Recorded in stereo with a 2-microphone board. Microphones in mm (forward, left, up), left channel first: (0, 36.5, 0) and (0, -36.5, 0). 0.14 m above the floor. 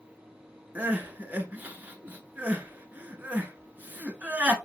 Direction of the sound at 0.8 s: 25° right (ahead or behind).